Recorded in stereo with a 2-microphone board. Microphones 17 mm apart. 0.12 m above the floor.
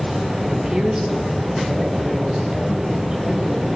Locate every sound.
0.4 s a woman speaking: 40° right (ahead or behind), 3 m; by 3.7 s 70° right (ahead or behind), 5 m